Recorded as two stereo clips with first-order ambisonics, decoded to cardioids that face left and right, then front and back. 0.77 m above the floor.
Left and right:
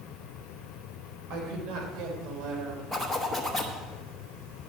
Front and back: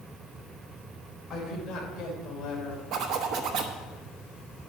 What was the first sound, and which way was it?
A woman speaking, 70° right.